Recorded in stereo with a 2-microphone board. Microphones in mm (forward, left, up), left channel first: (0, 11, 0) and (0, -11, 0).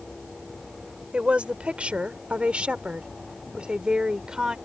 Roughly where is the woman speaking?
Right.